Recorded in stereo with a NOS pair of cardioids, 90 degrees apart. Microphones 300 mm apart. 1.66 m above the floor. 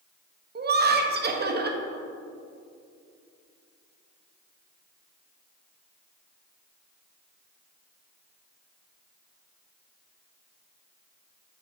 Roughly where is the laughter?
Ahead right.